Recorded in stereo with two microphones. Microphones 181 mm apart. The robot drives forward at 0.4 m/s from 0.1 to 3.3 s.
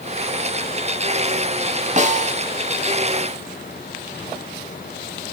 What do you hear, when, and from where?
2.0 s a snare drum: 40° right (ahead or behind), 1.4 m